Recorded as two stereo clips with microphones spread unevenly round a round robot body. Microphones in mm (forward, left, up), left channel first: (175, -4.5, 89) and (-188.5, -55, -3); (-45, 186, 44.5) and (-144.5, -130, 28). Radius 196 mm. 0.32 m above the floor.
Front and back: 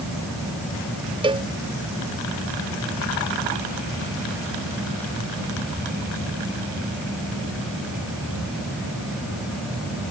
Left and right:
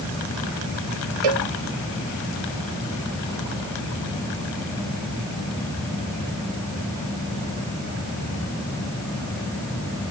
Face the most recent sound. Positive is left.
turn(degrees=-95)